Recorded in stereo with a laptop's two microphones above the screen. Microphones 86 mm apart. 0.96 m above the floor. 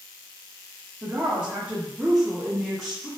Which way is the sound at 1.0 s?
30° right (ahead or behind).